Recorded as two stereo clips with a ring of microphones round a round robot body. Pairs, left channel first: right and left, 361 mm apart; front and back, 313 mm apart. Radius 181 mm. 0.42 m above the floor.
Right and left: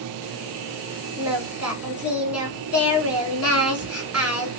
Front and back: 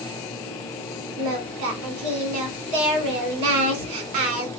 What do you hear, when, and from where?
1.2 s singing: 175° left, 1.1 m